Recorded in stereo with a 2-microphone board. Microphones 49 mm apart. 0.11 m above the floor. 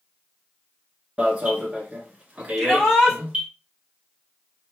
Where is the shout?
10° left (ahead or behind), 2.5 m.